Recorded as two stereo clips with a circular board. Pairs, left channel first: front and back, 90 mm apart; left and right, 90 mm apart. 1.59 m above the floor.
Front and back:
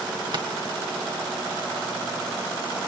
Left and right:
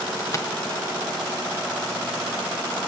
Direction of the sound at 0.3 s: 145° left.